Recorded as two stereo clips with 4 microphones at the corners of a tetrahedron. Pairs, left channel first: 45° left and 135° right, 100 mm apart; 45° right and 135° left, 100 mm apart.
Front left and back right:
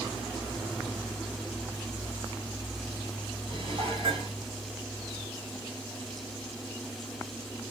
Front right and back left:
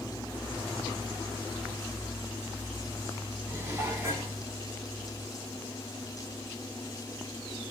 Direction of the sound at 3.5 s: 160° right.